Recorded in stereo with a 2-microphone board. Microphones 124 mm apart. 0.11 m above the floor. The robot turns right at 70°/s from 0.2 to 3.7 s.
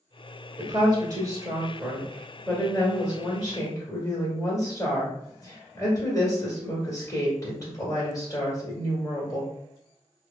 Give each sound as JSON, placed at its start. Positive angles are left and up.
{"t": 0.6, "sound": "a woman speaking", "azimuth_deg": -105, "distance_m": 1.5}